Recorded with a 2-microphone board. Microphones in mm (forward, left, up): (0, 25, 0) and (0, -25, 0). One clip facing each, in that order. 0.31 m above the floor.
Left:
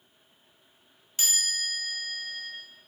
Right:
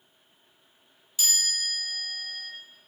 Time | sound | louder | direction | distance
1.2 | a chime | right 1 dB | 40° left (ahead or behind) | 1.3 m